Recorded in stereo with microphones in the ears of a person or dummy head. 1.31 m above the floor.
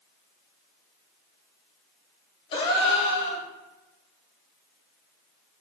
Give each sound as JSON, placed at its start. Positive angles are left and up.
{"t": 2.5, "sound": "a gasp", "side_deg": 25, "distance_m": 0.6}